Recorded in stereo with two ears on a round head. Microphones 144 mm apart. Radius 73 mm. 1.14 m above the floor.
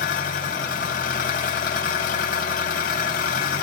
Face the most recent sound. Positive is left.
turn(degrees=60)  # may be behind; listen again after turning